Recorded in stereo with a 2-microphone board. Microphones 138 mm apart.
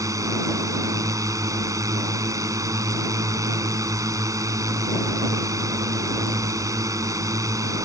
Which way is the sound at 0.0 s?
25° right (ahead or behind).